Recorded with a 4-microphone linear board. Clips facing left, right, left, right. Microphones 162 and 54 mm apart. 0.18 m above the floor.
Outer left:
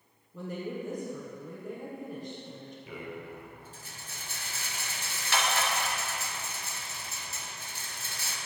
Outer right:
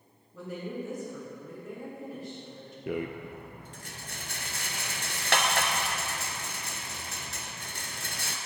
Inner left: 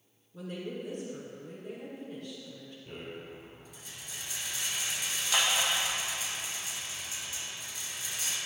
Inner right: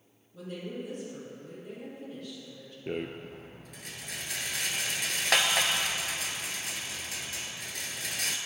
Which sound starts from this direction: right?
A rattle, at 2.9 s.